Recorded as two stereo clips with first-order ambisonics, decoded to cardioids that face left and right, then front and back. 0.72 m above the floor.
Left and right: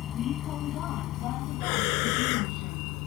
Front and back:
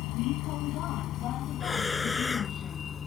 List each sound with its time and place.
0.0 s a vehicle: 30° left; by 3.1 s 70° left
1.6 s breathing: 80° left